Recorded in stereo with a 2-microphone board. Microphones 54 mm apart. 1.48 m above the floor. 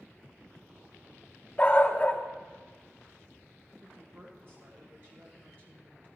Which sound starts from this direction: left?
A dog barking, at 1.6 s.